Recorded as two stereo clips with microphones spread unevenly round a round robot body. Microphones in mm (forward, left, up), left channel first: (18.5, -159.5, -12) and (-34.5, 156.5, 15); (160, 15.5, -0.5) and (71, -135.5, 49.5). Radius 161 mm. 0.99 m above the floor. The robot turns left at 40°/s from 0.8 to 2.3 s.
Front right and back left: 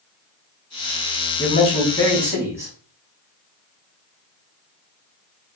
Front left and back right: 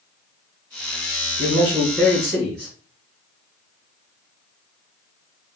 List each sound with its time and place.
1.4 s a man speaking: 140° right, 3 m; by 2.7 s 175° right, 3 m